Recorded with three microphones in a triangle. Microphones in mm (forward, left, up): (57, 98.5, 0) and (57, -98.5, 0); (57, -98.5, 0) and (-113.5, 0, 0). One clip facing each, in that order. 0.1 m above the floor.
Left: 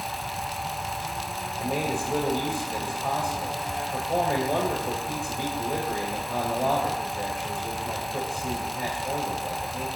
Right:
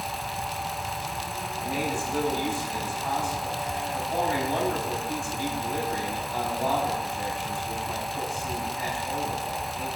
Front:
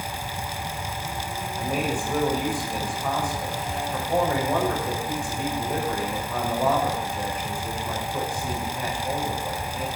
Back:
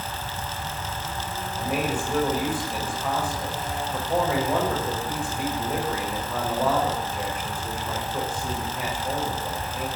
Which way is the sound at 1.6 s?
65° left.